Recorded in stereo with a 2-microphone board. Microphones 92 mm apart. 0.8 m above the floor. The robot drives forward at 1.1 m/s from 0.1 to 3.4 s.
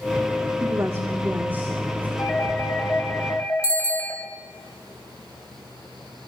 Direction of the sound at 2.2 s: 15° left (ahead or behind).